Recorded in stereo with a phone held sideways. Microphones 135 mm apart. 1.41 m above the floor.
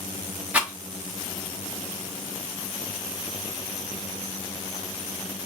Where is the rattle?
10° right (ahead or behind), 0.9 m.